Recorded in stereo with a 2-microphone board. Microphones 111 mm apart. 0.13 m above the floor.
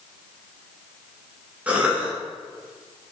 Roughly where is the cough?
Centre.